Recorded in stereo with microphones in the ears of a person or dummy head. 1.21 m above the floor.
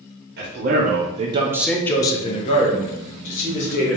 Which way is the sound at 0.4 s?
45° right (ahead or behind).